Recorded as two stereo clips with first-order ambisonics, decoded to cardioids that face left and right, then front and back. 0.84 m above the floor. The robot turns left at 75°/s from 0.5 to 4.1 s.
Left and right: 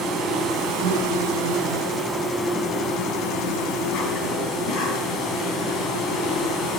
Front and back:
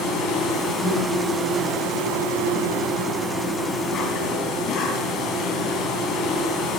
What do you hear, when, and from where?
0.0 s an insect: 45° right, 3.5 m; by 6.8 s 45° left, 3.5 m